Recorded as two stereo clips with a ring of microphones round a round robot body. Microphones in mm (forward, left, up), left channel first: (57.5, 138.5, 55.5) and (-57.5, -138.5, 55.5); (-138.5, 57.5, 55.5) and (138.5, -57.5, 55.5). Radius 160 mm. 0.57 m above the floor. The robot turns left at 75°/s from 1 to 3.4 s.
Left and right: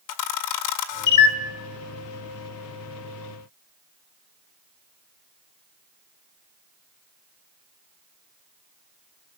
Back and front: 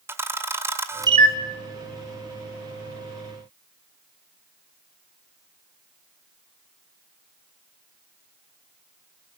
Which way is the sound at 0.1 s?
60° left.